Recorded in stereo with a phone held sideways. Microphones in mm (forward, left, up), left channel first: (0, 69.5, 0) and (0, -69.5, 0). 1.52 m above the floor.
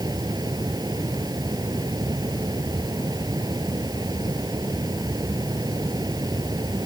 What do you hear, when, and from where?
0.0 s a fan: 30° right (ahead or behind)